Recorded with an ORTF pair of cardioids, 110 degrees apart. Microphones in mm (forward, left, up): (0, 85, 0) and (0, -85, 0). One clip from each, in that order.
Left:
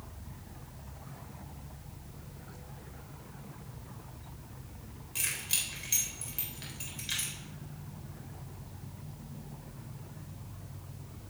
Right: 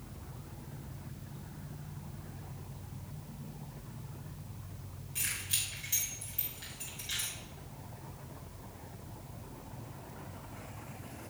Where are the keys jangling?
40° left, 4 m.